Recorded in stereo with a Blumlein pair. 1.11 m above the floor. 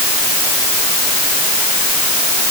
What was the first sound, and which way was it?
Only background noise.